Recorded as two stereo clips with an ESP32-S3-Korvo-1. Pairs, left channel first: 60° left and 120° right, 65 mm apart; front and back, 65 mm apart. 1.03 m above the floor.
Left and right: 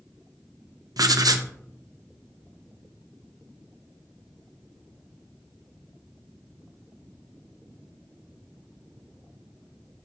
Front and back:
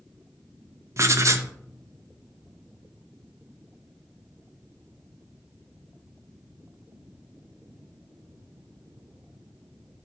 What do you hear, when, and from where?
1.0 s writing: 140° right, 0.6 m